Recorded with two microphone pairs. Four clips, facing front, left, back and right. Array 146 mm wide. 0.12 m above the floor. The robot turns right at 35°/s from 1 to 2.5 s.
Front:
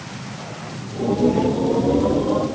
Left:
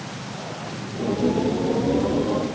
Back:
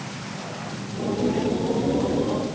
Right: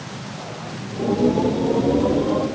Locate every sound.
Only background noise.